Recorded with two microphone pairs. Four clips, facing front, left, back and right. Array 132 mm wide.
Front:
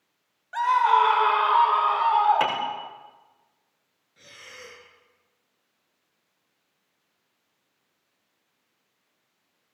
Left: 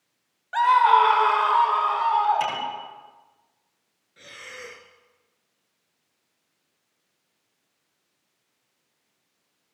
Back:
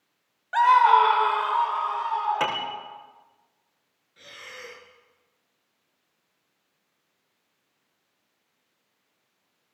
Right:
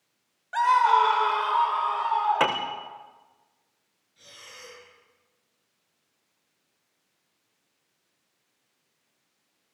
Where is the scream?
165° left, 1.2 m; by 2.9 s 20° left, 2.5 m.